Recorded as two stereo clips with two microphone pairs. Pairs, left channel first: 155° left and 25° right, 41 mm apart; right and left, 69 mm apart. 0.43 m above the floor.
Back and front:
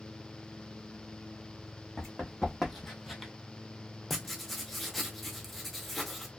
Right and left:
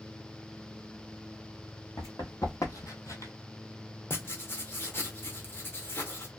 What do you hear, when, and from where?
2.0 s running footsteps: 115° right, 1.3 m; by 3.3 s 110° right, 0.5 m
4.1 s writing: 115° right, 0.5 m